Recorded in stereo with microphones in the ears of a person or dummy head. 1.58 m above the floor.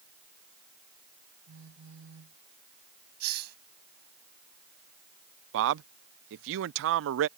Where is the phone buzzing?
85° right.